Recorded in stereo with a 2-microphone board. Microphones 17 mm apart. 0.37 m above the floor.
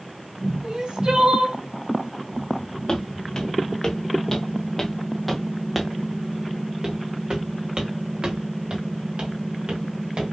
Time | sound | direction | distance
0.6 | crying | 70° right (ahead or behind) | 3.5 m
2.9 | footsteps | 35° left (ahead or behind) | 2 m